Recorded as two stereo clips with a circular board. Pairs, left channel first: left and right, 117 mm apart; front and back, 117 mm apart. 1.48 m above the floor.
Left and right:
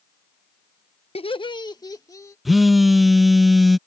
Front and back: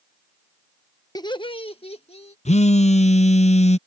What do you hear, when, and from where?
1.1 s laughter: 55° left; by 2.4 s 30° left
2.5 s a phone buzzing: straight ahead